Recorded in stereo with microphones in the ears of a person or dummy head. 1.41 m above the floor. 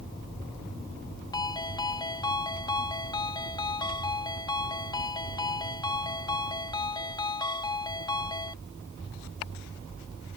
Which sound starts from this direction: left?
A ringtone, at 1.3 s.